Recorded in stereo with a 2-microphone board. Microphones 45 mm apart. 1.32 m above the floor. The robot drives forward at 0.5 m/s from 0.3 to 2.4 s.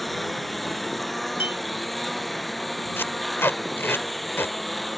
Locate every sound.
0.0 s a lawn mower: centre (ahead or behind)
1.4 s a clink: 45° right (ahead or behind)
3.0 s tape being pulled: 60° left (ahead or behind)